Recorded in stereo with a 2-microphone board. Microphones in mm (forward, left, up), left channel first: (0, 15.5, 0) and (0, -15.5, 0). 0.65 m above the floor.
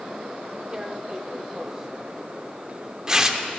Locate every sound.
0.7 s tearing paper: 20° right (ahead or behind), 0.7 m